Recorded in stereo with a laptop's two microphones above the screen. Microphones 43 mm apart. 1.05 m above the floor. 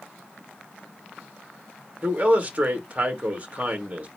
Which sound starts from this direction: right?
A man speaking, at 2.0 s.